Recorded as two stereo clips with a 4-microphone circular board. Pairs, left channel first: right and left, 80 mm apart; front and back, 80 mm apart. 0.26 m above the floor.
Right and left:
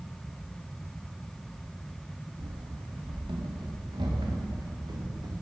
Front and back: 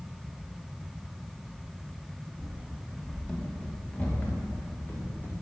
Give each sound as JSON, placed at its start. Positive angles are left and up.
{"t": 2.4, "sound": "running footsteps", "azimuth_deg": 95, "distance_m": 2.0}